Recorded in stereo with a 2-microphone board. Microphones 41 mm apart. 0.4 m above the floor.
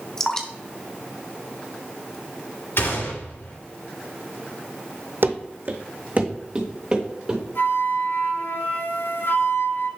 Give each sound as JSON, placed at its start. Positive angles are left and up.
{"t": 0.2, "sound": "dripping", "side_deg": 20, "distance_m": 1.0}
{"t": 2.8, "sound": "a gunshot", "side_deg": 80, "distance_m": 2.5}
{"t": 5.2, "sound": "running footsteps", "side_deg": -65, "distance_m": 0.9}
{"t": 7.5, "sound": "a flute", "side_deg": 70, "distance_m": 1.4}